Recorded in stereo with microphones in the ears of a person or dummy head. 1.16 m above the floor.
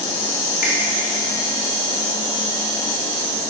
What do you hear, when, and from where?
0.6 s a finger snap: 50° left (ahead or behind), 1.7 m